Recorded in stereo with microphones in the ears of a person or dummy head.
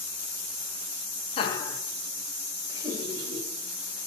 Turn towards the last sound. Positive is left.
turn(degrees=-30)  # may be behind; listen again after turning